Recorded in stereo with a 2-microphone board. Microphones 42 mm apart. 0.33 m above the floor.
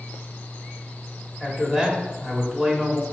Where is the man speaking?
10° right (ahead or behind), 1.5 m.